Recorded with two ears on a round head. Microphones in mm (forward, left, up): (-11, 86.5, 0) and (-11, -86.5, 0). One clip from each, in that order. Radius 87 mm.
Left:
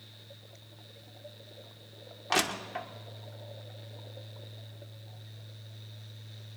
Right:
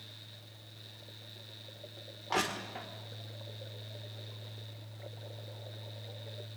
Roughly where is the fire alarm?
No fire alarm in this recording.